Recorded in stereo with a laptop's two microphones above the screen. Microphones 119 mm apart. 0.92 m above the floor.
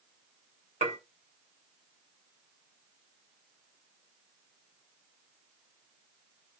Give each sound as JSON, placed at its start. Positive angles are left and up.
{"t": 0.8, "sound": "dishes clattering", "side_deg": -85, "distance_m": 3.0}